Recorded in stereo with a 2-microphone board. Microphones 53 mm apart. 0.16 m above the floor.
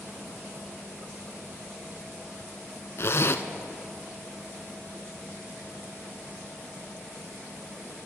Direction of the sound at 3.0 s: 55° left (ahead or behind).